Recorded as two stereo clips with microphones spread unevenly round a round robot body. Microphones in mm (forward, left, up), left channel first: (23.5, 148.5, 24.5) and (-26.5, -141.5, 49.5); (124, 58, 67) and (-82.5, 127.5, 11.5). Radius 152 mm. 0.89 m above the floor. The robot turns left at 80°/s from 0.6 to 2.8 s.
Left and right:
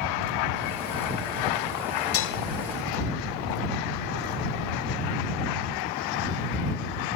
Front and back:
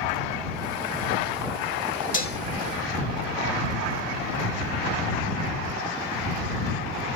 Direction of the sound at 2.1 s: 35° left.